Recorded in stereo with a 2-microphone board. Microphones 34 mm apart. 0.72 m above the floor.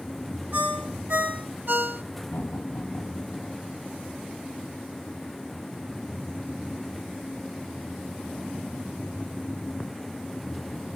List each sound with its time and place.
0.5 s a ringtone: 75° right (ahead or behind), 2 m
2.3 s laughter: 65° left (ahead or behind), 4 m